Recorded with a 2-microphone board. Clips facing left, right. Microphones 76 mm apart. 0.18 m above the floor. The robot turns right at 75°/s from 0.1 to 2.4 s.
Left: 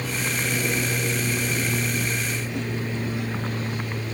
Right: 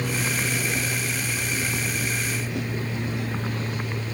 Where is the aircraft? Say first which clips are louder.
Right 1 dB; 10° right; by 4.1 s 160° left.